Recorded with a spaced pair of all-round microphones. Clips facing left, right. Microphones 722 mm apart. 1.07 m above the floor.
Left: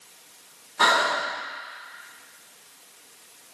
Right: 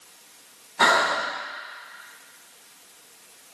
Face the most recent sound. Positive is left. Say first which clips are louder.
# right 2 dB
turn(degrees=-20)  # may be behind; listen again after turning